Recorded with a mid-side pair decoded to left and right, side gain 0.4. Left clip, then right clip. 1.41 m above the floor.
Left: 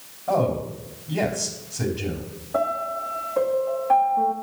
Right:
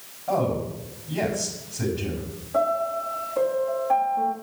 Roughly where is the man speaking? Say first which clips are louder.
Left 2 dB; ahead left.